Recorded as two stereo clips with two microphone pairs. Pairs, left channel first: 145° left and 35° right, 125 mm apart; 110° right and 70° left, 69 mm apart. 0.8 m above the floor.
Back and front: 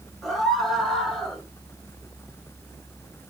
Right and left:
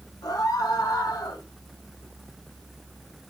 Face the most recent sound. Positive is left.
turn(degrees=-125)